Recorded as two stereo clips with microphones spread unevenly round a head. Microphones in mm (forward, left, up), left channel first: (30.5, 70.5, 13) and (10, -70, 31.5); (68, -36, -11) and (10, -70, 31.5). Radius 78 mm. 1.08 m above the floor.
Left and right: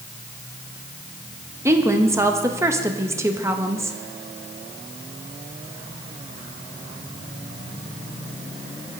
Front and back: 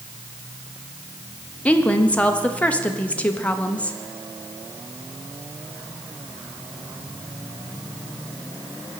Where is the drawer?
No drawer in this recording.